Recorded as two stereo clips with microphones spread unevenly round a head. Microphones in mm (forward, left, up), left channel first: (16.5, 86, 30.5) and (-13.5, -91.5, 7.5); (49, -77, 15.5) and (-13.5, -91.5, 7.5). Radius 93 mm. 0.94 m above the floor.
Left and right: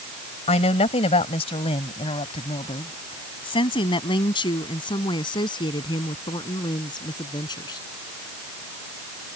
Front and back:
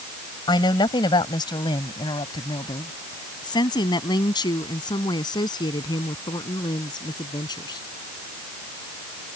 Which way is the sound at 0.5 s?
20° left.